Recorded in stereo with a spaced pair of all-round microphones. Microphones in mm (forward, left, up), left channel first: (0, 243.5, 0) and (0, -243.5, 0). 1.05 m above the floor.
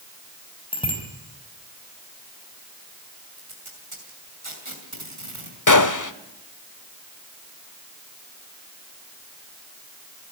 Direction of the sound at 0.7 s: 10° left (ahead or behind).